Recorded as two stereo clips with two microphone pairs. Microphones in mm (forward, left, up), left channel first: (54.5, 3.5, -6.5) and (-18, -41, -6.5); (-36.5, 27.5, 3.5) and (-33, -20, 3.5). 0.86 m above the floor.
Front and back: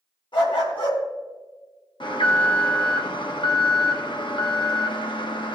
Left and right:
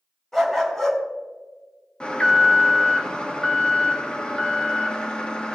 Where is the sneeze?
I don't hear a sneeze.